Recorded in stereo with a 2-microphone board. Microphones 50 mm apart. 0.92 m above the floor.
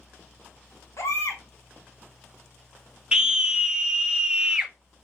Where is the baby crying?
70° left (ahead or behind), 2.5 m.